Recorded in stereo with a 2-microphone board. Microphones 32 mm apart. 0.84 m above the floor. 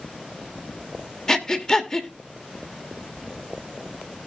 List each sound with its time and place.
1.3 s breathing: 15° left (ahead or behind), 1.4 m